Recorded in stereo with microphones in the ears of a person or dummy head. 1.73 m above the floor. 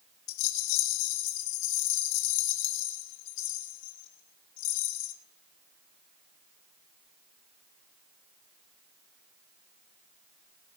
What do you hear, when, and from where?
0.3 s a rattle: 60° left (ahead or behind), 2.5 m